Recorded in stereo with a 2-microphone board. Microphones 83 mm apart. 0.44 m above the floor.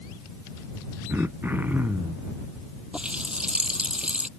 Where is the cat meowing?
I don't hear a cat meowing.